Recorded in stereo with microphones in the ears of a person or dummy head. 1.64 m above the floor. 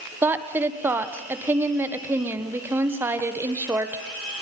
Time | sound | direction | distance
0.2 | a woman speaking | 10° right (ahead or behind) | 1.3 m